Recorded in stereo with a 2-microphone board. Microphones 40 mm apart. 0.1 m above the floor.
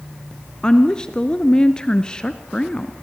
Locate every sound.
0.6 s a woman speaking: 20° left (ahead or behind), 1.3 m